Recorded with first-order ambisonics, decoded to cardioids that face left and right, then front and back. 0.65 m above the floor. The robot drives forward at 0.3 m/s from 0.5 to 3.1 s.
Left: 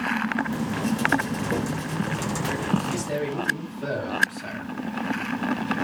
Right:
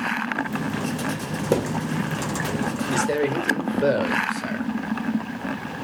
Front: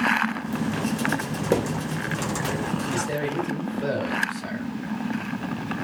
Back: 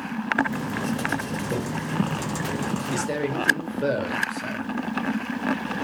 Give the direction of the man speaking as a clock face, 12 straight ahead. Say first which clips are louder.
Right 6 dB, back 1 dB; 4 o'clock.